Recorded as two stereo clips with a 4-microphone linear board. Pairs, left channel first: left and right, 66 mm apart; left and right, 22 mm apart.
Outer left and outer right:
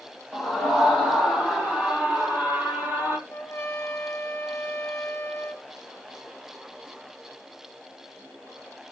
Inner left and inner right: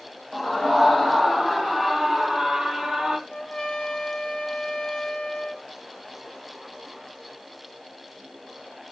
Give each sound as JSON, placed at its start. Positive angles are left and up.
{"t": 0.3, "sound": "a scream", "side_deg": -5, "distance_m": 5.0}
{"t": 3.3, "sound": "a trumpet", "side_deg": 35, "distance_m": 2.0}